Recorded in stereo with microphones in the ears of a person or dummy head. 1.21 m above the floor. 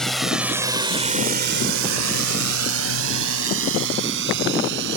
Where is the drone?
10° left (ahead or behind); by 5.0 s 65° right (ahead or behind).